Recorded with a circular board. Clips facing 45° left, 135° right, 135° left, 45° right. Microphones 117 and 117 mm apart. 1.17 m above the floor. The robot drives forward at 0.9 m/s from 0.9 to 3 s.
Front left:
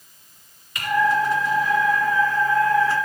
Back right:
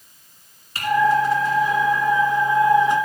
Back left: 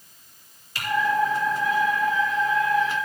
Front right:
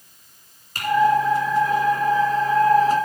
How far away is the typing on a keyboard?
About 2.5 m.